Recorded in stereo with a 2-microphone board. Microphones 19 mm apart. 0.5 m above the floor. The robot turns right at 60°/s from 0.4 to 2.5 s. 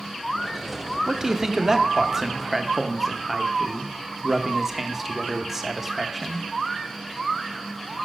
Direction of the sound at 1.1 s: 15° right (ahead or behind).